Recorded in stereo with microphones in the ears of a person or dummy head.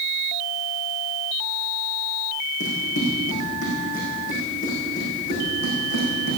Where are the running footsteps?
40° left (ahead or behind), 6 m; by 6.4 s 60° left (ahead or behind), 6.5 m.